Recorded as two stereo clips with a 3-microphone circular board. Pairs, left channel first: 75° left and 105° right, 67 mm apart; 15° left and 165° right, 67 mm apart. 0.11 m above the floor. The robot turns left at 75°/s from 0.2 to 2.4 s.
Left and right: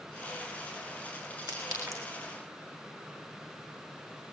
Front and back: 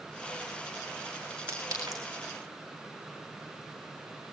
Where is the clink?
110° right, 4.5 m; by 2.0 s 150° right, 4.5 m.